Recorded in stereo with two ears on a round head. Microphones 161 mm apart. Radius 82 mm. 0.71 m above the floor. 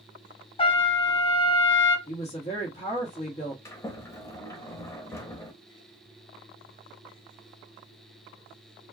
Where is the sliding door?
15° left (ahead or behind), 0.9 m.